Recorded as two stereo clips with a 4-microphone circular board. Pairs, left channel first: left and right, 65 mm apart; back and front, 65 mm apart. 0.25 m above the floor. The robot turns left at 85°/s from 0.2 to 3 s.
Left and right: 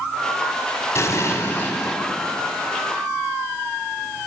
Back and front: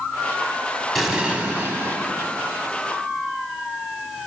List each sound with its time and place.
0.9 s an explosion: 90° left, 1.0 m; by 2.0 s 5° left, 1.0 m